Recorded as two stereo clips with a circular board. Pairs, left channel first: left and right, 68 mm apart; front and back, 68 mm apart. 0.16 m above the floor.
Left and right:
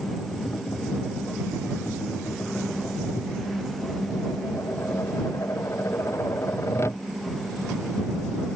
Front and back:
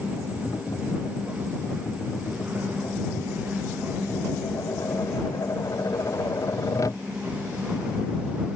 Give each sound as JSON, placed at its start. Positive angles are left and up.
{"t": 0.3, "sound": "tapping", "azimuth_deg": 40}